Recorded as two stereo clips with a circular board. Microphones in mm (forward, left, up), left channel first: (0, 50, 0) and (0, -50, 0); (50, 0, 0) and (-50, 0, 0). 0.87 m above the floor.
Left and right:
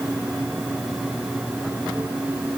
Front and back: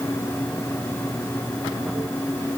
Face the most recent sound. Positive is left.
No sound to turn to.